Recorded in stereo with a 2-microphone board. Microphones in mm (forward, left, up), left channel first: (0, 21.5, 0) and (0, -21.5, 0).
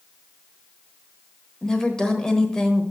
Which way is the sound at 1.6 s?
15° left (ahead or behind).